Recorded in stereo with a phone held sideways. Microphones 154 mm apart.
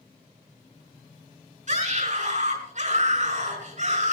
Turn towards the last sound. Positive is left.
turn(degrees=-55)  # may be behind; listen again after turning